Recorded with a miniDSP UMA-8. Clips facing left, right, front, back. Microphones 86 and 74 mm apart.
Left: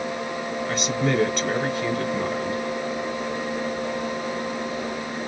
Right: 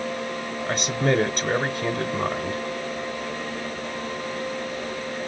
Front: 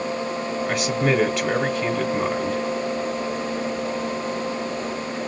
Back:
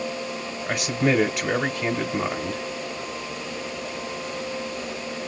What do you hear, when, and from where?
0.7 s a man speaking: 95° right, 1.1 m